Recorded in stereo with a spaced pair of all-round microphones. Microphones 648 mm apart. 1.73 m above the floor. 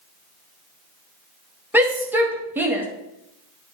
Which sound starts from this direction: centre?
A shout, at 1.7 s.